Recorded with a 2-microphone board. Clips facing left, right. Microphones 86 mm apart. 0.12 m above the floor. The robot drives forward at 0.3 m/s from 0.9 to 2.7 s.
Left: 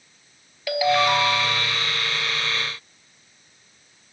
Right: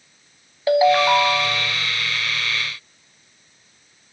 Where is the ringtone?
35° right (ahead or behind), 1.2 m; by 1.8 s 40° right (ahead or behind), 1.0 m.